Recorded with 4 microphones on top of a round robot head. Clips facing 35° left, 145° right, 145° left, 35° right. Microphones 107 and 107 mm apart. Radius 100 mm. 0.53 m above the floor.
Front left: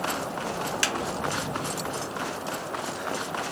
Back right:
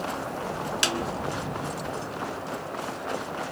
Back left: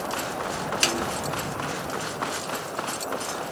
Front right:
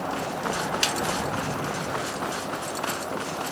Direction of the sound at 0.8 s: 155° left.